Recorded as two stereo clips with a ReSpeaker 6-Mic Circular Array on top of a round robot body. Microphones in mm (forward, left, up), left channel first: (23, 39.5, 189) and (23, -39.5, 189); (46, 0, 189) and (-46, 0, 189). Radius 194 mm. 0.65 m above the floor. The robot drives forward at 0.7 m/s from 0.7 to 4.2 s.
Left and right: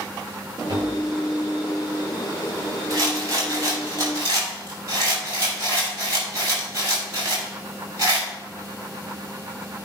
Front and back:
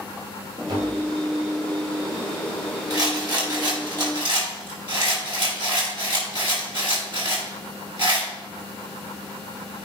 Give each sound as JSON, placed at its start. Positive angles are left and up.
{"t": 0.7, "sound": "tapping", "azimuth_deg": -135, "distance_m": 3.0}
{"t": 2.9, "sound": "a rattle", "azimuth_deg": -135, "distance_m": 4.0}